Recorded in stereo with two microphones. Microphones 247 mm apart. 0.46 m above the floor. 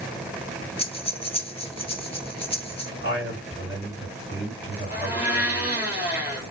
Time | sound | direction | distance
0.8 | breathing | 25° left (ahead or behind) | 0.8 m
3.0 | a man speaking | 60° left (ahead or behind) | 2.5 m
4.9 | a blender | 10° right (ahead or behind) | 2.5 m